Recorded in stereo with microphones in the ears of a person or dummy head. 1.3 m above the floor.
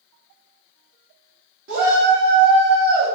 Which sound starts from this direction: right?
A shout, at 1.7 s.